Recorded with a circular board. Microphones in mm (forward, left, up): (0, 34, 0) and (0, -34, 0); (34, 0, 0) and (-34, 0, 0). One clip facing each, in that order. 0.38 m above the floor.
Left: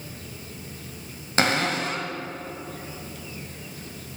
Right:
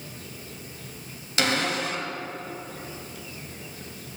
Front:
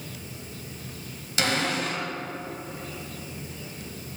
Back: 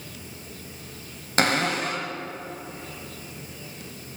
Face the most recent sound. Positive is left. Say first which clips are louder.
# left 2 dB, back 3 dB
turn(degrees=140)